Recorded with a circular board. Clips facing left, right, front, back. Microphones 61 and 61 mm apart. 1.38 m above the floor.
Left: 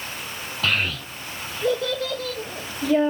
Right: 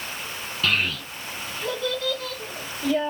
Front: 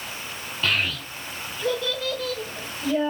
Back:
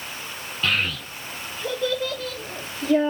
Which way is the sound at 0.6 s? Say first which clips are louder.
Even, back 1 dB; 95° left.